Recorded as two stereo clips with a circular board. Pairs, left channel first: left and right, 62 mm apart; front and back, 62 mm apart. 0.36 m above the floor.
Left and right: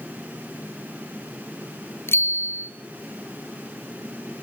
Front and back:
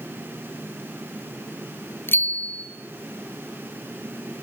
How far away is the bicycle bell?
About 2.5 m.